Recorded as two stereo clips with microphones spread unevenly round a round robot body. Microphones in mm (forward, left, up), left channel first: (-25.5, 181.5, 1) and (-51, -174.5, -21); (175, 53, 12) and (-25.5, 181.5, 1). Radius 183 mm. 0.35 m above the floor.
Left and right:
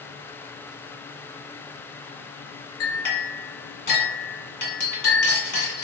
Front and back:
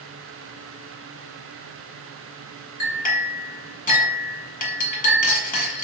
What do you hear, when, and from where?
2.8 s a clink: 25° left, 1.8 m